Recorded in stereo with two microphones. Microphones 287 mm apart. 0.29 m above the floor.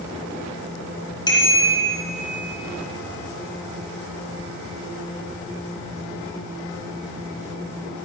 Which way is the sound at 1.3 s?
15° left (ahead or behind).